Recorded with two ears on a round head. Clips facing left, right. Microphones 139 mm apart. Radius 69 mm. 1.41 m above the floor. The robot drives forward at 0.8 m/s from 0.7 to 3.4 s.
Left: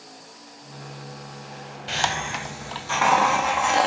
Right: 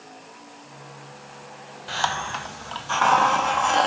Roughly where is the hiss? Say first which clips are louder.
Even; left.